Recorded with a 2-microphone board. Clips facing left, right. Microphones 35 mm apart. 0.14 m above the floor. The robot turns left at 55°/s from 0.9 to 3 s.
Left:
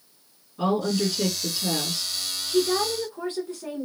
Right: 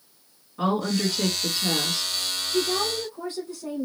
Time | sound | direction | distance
0.6 | a woman speaking | 120° right | 2 m
2.5 | a woman speaking | 45° left (ahead or behind) | 1.4 m